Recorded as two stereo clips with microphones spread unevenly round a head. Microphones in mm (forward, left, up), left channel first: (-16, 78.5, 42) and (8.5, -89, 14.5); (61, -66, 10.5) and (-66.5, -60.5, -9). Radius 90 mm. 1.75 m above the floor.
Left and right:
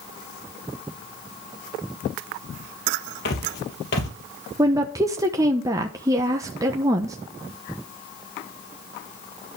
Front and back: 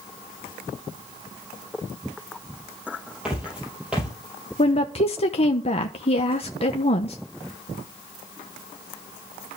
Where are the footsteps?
90° left, 3.5 m.